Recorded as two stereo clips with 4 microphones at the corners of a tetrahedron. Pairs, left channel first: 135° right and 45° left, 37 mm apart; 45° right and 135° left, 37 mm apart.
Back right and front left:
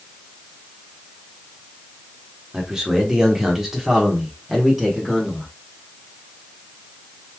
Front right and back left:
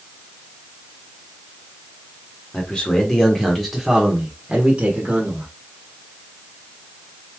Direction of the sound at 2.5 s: 20° right.